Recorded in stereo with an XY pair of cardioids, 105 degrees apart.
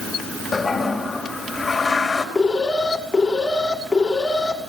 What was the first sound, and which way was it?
A toilet flushing, 20° left.